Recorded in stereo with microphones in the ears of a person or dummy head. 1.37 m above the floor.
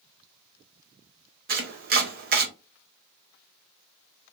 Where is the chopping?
45° right (ahead or behind), 0.6 m.